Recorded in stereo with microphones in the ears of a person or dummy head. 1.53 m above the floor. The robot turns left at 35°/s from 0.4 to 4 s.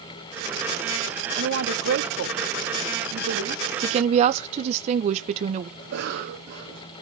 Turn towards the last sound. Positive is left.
turn(degrees=-60)  # may be behind; listen again after turning